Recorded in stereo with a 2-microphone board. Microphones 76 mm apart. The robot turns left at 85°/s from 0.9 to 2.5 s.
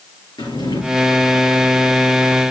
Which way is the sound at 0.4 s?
70° left (ahead or behind).